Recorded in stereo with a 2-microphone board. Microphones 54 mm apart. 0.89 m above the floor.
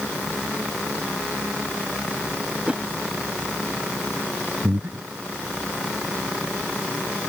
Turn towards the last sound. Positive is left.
turn(degrees=-35)  # may be behind; listen again after turning